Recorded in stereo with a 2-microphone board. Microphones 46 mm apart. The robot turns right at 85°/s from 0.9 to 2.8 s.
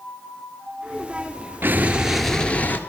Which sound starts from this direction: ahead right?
An explosion, at 1.6 s.